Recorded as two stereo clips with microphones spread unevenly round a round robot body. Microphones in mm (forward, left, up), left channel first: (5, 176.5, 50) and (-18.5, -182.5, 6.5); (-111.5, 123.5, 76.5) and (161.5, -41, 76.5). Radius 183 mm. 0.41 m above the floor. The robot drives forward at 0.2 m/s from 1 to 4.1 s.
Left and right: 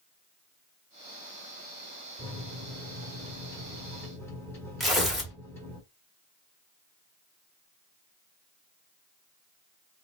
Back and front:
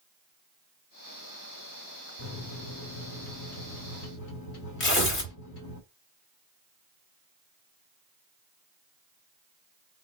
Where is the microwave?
170° left, 1.2 m; by 5.8 s 175° left, 1.6 m.